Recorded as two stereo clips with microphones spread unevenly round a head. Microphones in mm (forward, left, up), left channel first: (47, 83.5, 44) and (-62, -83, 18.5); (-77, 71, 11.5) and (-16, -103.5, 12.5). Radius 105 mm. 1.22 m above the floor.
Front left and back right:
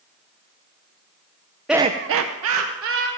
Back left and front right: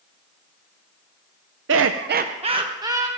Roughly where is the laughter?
Ahead right.